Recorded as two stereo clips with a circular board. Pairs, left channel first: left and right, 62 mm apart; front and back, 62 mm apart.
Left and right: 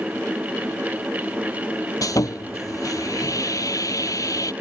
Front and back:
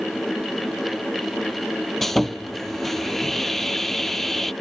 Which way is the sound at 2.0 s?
85° left.